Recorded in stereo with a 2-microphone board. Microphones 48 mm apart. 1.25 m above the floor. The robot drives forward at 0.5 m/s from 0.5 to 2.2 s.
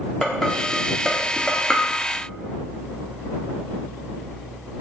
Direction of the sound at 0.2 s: 10° left (ahead or behind).